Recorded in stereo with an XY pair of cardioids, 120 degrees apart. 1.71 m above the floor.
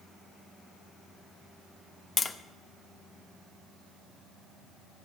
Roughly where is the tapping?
Ahead left.